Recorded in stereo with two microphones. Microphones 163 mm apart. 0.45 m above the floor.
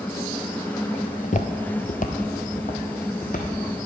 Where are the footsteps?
45° left (ahead or behind), 0.5 m; by 3.5 s 55° left (ahead or behind), 1.8 m.